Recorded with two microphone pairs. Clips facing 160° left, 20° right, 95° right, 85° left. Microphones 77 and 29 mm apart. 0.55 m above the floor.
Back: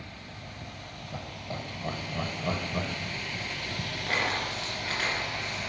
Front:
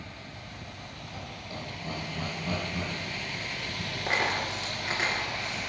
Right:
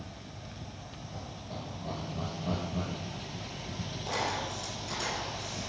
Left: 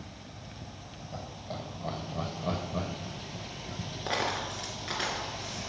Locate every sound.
1.1 s laughter: 125° left, 3.5 m; by 3.9 s 130° left, 2 m
4.1 s a dropped coin: 50° left, 4 m